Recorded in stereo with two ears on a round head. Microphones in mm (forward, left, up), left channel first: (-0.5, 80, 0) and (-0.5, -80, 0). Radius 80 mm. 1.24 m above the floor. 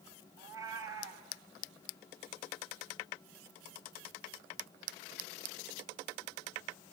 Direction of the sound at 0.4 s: 20° right (ahead or behind).